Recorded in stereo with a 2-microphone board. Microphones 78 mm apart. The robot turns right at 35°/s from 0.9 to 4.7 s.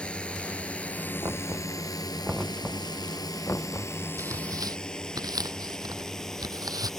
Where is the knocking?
50° right (ahead or behind); by 4.0 s 45° left (ahead or behind).